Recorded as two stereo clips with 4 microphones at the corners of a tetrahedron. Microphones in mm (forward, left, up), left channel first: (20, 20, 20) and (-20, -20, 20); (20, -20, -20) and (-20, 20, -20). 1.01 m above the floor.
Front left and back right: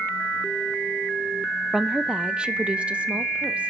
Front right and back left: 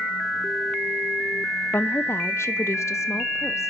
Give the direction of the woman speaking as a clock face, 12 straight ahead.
2 o'clock.